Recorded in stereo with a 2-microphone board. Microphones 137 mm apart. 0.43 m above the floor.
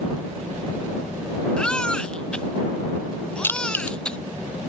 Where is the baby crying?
5° left (ahead or behind).